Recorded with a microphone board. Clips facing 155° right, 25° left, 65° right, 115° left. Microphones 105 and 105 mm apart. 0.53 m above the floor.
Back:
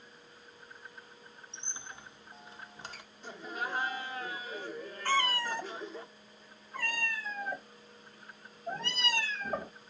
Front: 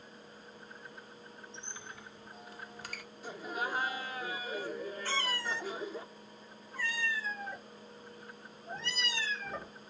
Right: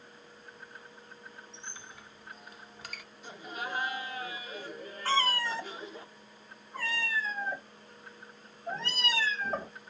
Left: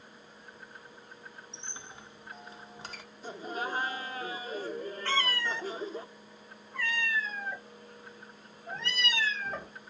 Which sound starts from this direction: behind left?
A squeak, at 1.5 s.